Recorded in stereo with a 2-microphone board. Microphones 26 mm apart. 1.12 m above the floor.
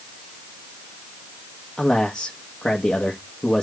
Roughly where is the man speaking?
Left.